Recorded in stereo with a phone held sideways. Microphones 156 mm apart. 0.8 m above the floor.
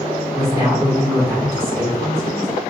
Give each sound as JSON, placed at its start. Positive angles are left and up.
{"t": 0.3, "sound": "a woman speaking", "side_deg": -15, "distance_m": 0.7}